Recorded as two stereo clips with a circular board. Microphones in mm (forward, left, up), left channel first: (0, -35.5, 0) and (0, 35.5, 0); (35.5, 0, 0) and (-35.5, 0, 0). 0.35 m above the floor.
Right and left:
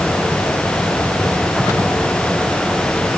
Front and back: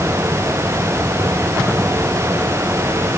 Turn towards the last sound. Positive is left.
No sound to turn to.